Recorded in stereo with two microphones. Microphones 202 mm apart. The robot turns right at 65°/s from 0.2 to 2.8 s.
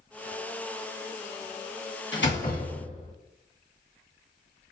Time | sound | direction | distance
2.1 | a door slam | 105° left | 1.6 m